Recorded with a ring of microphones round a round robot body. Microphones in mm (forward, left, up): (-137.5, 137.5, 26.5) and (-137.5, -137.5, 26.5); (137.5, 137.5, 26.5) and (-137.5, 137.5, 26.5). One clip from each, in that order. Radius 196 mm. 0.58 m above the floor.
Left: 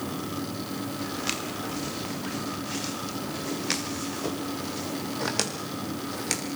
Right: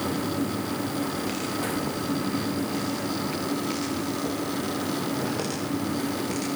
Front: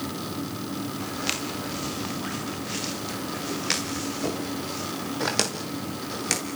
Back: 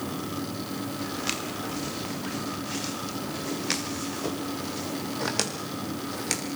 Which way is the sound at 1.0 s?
75° left.